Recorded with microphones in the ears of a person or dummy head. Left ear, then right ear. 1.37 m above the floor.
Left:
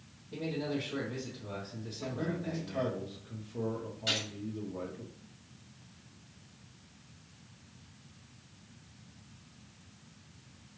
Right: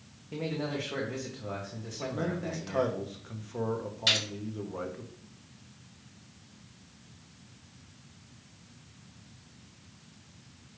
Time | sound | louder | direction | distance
0.3 | a man speaking | right 2 dB | 65° right (ahead or behind) | 1.0 m
2.0 | a man speaking | right 4 dB | 60° right (ahead or behind) | 1.0 m
4.1 | a gunshot | right 6 dB | 35° right (ahead or behind) | 2.0 m